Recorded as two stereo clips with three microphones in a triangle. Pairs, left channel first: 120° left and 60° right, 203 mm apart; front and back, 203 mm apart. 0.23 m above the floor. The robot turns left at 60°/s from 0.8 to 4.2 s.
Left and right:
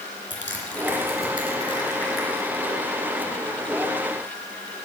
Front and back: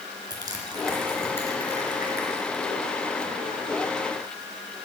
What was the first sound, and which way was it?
Crushing, 110° left.